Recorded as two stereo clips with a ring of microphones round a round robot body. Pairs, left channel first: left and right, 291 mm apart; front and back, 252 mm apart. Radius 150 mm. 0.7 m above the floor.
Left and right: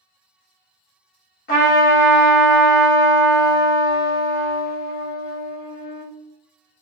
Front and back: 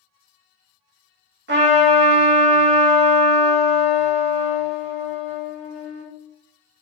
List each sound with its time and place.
1.5 s a trumpet: 145° left, 1.4 m